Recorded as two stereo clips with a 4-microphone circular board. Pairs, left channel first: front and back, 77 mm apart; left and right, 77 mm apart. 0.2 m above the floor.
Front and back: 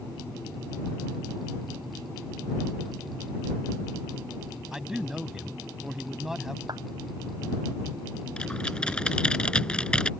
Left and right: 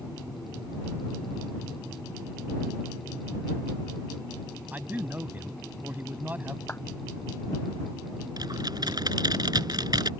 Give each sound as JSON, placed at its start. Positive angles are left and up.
{"t": 4.7, "sound": "a man speaking", "azimuth_deg": -105}
{"t": 6.7, "sound": "a clap", "azimuth_deg": 155}
{"t": 8.4, "sound": "typing on a keyboard", "azimuth_deg": -75}